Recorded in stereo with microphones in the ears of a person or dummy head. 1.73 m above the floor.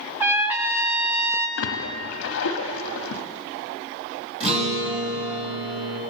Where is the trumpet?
10° right (ahead or behind), 0.8 m.